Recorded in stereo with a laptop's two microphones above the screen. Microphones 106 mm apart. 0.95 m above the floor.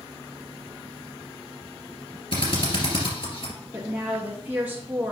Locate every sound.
2.3 s a drill: 60° left (ahead or behind), 2.5 m
3.7 s a woman speaking: 15° right (ahead or behind), 1.1 m